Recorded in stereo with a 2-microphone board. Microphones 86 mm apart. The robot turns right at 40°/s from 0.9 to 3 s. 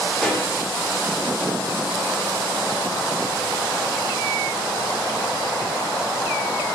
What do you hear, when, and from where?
0.2 s a pop: 5° right (ahead or behind), 2.5 m